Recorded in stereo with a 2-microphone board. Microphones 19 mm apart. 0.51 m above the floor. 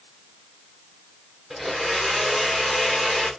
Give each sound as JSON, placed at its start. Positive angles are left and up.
{"t": 1.5, "sound": "a blender", "side_deg": -10, "distance_m": 2.0}